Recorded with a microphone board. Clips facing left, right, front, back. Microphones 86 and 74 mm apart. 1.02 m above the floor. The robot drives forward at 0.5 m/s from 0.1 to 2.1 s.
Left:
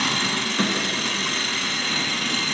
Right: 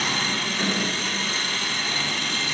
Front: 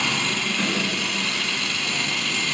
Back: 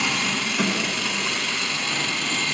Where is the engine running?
100° left, 3 m; by 2.5 s 115° left, 3.5 m.